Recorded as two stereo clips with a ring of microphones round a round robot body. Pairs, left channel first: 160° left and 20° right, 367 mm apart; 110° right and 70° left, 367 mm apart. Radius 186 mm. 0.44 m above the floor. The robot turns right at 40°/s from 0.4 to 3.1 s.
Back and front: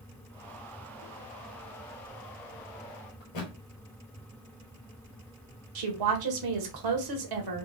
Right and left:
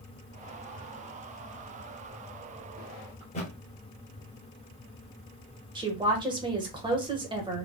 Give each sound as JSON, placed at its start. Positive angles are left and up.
{"t": 3.2, "sound": "a thud", "azimuth_deg": 175, "distance_m": 1.9}
{"t": 5.8, "sound": "a woman speaking", "azimuth_deg": -10, "distance_m": 1.6}